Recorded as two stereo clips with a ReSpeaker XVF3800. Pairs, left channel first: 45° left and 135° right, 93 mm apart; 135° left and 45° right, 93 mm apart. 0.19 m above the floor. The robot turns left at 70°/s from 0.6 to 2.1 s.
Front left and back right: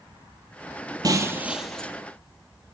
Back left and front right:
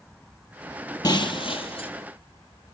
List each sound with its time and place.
1.0 s breaking glass: straight behind, 3 m; by 1.9 s 120° left, 3 m